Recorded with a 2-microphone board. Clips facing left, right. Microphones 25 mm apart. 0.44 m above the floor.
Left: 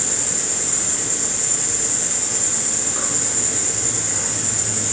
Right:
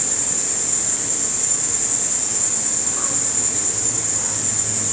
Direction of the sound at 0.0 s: 80° left.